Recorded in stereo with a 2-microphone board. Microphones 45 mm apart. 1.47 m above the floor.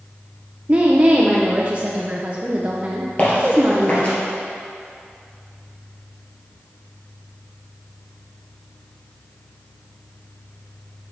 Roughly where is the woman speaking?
Right.